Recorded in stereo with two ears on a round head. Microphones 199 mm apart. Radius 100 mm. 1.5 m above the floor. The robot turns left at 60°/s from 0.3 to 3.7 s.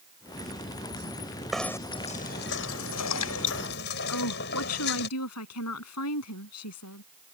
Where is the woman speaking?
85° left.